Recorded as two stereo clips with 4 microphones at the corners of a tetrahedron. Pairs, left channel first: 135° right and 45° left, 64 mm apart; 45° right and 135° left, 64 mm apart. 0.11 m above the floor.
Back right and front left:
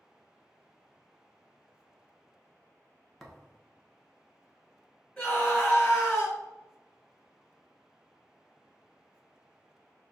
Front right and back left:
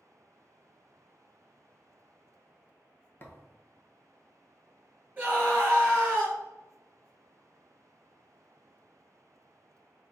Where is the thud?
50° right, 0.5 m.